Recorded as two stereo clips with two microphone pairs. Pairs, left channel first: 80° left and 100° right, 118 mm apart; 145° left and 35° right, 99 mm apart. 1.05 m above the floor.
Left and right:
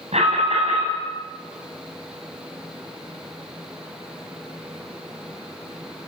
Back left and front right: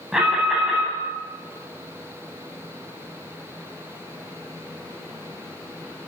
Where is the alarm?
120° right, 9.5 m.